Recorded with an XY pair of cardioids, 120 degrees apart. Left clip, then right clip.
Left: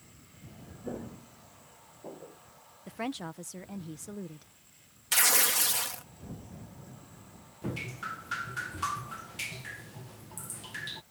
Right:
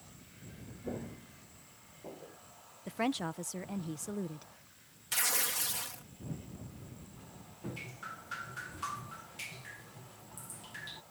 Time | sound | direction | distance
0.8 | footsteps | 15° left | ?
2.9 | a woman speaking | 15° right | ?
5.1 | tearing paper | 45° left | ?
7.6 | dripping | 40° left | ?